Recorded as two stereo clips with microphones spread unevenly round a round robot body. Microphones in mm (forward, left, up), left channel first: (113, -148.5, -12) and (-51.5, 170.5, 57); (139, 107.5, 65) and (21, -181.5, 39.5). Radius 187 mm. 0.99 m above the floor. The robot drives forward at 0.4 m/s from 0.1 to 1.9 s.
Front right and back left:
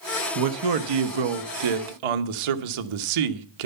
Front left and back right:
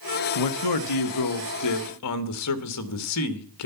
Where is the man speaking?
80° left, 1.0 m; by 3.7 s 115° left, 1.1 m.